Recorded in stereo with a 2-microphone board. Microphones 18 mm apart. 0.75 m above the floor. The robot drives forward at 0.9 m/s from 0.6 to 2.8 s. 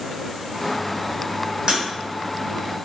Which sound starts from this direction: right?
Breaking glass, at 1.7 s.